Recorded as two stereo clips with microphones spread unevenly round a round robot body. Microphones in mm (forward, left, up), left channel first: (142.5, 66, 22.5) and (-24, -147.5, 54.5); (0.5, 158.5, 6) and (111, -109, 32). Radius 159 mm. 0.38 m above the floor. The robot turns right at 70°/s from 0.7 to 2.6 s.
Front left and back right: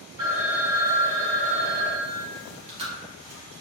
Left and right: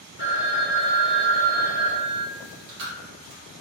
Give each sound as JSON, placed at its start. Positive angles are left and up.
{"t": 0.2, "sound": "a phone ringing", "azimuth_deg": -140, "distance_m": 1.7}
{"t": 2.4, "sound": "chewing", "azimuth_deg": -75, "distance_m": 2.0}